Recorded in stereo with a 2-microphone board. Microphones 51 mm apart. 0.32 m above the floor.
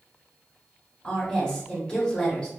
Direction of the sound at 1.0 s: 15° left (ahead or behind).